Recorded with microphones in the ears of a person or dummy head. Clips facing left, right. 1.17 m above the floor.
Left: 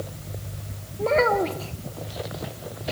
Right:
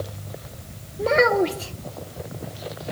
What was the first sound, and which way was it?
A child speaking, 20° right (ahead or behind).